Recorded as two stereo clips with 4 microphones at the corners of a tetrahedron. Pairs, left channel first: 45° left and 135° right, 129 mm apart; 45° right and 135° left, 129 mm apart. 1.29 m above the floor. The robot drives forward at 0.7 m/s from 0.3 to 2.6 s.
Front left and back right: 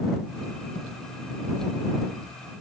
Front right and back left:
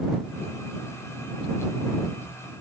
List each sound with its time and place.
Only background noise.